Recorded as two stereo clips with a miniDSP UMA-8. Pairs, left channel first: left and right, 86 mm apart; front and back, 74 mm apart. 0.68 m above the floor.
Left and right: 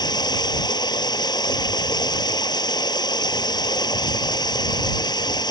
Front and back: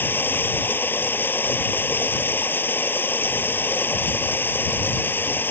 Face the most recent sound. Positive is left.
turn(degrees=60)